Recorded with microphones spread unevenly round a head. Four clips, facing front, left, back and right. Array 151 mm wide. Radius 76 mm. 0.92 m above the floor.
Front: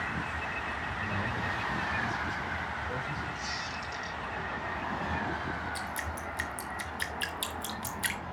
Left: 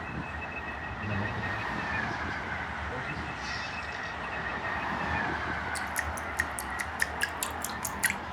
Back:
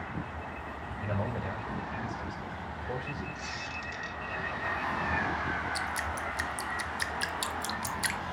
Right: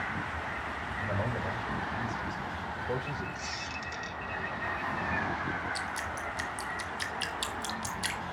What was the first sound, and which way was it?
A man speaking, 120° right.